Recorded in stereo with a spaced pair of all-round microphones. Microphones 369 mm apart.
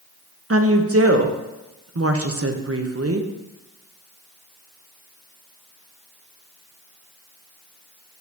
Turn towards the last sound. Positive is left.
turn(degrees=-40)  # may be behind; listen again after turning